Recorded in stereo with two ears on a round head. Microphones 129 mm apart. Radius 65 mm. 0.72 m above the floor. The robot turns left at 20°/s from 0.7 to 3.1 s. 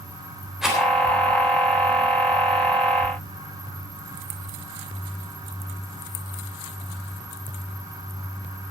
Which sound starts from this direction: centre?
A rattle, at 0.6 s.